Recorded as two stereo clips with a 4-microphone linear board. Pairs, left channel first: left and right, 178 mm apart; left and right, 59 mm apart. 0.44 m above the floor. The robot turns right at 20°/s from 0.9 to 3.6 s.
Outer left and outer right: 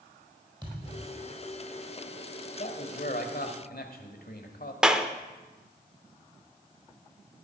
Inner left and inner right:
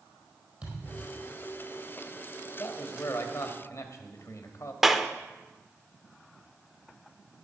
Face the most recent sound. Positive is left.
turn(degrees=-5)  # may be behind; listen again after turning